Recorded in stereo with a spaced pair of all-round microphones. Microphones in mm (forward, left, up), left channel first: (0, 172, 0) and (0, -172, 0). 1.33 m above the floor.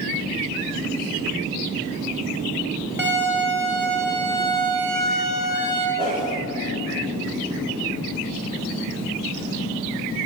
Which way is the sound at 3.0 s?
5° right (ahead or behind).